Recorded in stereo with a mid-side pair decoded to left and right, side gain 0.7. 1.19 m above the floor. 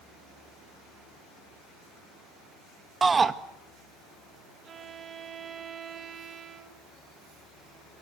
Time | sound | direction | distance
3.0 | a shout | 20° right | 1.7 m
4.6 | a violin | 40° right | 2.0 m